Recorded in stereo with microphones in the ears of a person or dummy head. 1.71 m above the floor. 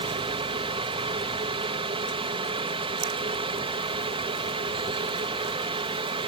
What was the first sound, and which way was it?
A fan, 25° right (ahead or behind).